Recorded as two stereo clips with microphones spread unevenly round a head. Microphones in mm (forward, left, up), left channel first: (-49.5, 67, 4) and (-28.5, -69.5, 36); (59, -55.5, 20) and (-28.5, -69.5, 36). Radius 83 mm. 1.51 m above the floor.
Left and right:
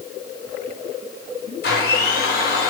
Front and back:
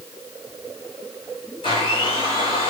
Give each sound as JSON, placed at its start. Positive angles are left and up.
{"t": 1.6, "sound": "a blender", "azimuth_deg": 70, "distance_m": 5.0}